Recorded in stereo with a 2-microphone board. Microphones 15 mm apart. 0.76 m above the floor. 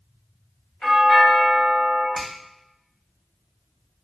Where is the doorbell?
35° left (ahead or behind), 1.0 m.